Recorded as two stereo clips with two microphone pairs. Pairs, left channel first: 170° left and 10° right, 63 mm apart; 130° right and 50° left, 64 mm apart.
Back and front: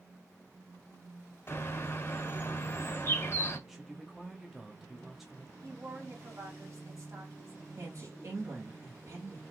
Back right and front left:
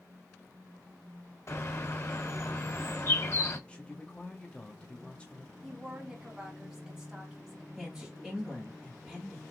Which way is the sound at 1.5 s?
155° right.